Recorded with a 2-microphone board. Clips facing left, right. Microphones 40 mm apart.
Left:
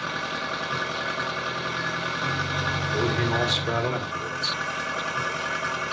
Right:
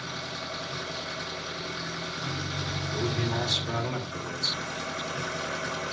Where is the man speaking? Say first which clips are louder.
Left 4 dB; 40° left (ahead or behind), 3.5 m.